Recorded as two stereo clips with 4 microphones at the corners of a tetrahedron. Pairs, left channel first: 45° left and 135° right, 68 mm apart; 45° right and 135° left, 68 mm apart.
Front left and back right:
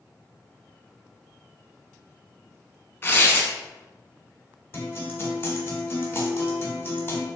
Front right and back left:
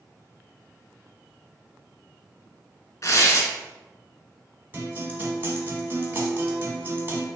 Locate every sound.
3.0 s tearing paper: 10° right, 0.7 m
4.7 s a guitar: 90° left, 0.9 m